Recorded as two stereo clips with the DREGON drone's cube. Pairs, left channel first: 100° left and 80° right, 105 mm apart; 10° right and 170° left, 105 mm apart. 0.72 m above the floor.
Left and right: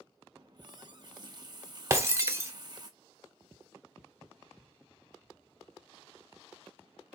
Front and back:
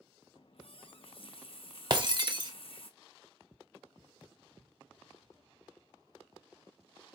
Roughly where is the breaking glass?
Behind right.